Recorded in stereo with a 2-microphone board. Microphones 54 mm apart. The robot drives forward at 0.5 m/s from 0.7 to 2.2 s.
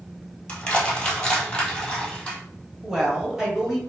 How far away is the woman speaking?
About 1.3 m.